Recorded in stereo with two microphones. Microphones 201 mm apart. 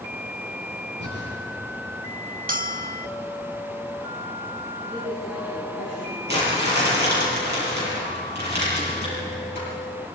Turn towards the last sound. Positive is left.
turn(degrees=-55)  # may be behind; listen again after turning